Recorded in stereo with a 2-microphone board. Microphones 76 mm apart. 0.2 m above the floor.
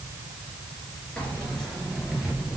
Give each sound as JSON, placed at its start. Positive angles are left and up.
{"t": 1.2, "sound": "keys jangling", "side_deg": 10, "distance_m": 2.5}